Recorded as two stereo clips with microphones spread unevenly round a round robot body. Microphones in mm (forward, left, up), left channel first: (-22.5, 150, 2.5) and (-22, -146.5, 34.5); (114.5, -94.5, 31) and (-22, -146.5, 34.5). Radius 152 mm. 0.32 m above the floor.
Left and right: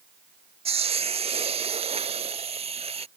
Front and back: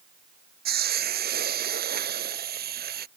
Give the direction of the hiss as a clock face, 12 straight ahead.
5 o'clock.